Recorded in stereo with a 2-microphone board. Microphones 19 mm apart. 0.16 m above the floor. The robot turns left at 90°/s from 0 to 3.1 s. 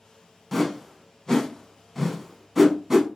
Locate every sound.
0.5 s a whoosh: 5° left (ahead or behind), 0.5 m; by 3.1 s 20° right (ahead or behind), 0.5 m